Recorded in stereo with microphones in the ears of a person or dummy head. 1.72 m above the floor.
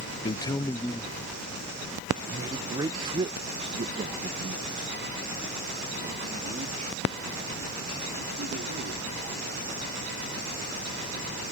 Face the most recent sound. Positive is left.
turn(degrees=-40)  # may be behind; listen again after turning